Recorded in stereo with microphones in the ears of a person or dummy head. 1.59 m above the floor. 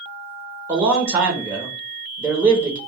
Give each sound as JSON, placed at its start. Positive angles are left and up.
{"t": 0.7, "sound": "a man speaking", "side_deg": -15, "distance_m": 0.9}